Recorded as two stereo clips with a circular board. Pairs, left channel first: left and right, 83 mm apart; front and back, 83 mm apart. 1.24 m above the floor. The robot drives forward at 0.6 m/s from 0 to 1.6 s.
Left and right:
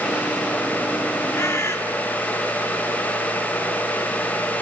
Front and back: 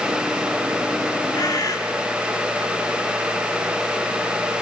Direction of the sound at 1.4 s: 35° left.